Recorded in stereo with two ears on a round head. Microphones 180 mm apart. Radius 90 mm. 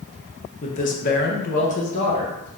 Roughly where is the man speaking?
Left.